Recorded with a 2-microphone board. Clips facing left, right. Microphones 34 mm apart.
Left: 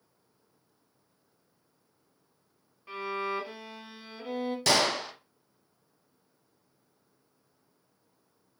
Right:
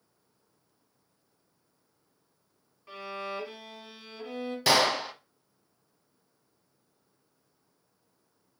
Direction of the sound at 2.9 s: 10° left (ahead or behind).